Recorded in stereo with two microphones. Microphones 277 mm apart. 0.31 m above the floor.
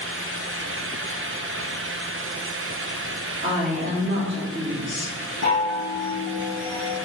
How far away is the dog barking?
I don't hear a dog barking.